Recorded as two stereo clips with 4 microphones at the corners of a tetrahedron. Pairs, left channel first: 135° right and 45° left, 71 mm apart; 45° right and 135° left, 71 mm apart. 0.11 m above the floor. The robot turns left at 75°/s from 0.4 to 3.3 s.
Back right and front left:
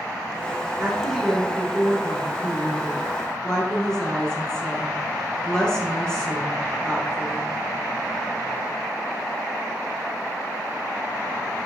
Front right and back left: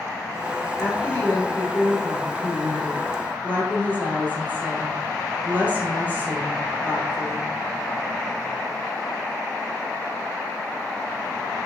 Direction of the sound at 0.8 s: 10° right.